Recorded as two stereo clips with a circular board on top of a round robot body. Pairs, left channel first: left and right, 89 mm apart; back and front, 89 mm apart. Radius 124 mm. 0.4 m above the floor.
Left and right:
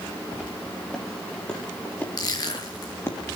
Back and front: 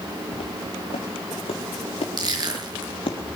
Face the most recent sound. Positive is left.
turn(degrees=45)